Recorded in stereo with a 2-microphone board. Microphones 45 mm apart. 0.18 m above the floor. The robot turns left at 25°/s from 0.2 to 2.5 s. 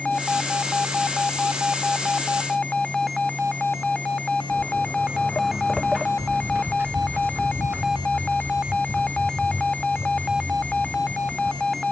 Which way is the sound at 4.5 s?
75° left (ahead or behind).